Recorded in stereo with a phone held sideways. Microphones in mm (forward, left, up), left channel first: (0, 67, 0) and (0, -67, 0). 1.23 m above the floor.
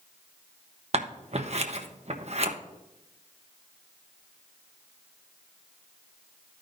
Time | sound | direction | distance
0.9 | scissors | 55° right (ahead or behind) | 1.0 m